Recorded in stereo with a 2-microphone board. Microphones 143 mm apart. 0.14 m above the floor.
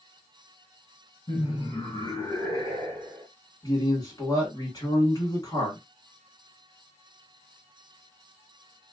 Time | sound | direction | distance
1.3 | laughter | 40° left (ahead or behind) | 1.7 m
3.6 | a man speaking | 25° left (ahead or behind) | 1.6 m